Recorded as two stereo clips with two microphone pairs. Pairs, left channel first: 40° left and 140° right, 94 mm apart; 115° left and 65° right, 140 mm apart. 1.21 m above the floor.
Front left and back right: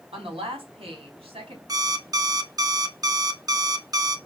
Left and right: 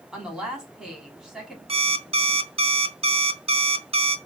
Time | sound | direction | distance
0.1 | a woman speaking | 155° right | 3.5 m
1.7 | an alarm clock | 100° right | 0.8 m